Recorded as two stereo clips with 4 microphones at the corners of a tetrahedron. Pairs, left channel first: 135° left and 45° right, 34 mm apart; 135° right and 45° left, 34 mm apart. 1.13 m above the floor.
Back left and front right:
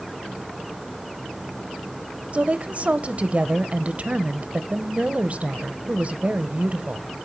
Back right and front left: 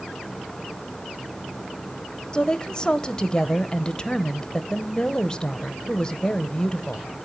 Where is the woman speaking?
70° right, 0.7 m.